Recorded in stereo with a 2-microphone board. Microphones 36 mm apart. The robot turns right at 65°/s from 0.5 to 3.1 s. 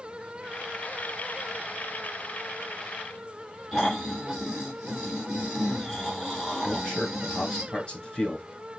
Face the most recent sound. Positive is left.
turn(degrees=25)  # may be behind; listen again after turning